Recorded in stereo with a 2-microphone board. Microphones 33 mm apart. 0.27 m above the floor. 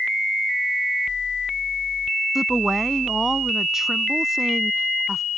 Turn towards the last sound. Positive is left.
turn(degrees=-10)  # may be behind; listen again after turning